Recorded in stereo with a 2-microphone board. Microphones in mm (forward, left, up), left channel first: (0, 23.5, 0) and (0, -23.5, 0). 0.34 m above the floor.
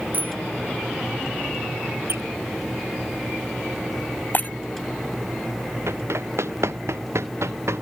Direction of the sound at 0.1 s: 40° right (ahead or behind).